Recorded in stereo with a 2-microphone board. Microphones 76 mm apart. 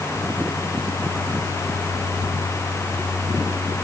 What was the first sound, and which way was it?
Only background noise.